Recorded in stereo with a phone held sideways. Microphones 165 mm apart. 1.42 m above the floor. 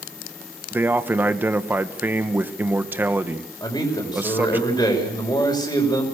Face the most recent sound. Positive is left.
turn(degrees=25)  # may be behind; listen again after turning